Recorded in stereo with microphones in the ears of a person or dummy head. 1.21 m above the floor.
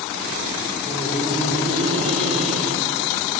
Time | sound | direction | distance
0.9 | laughter | 20° right (ahead or behind) | 4 m